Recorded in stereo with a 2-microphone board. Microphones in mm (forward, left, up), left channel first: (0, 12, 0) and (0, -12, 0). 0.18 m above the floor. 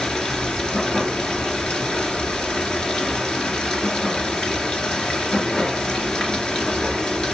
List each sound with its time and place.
0.0 s running water: 30° left (ahead or behind), 3 m